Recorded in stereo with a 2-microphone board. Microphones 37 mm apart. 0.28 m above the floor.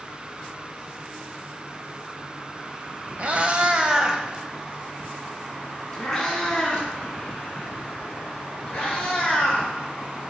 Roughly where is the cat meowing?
Right.